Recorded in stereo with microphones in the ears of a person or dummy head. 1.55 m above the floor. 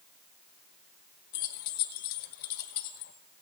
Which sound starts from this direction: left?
Keys jangling, at 1.3 s.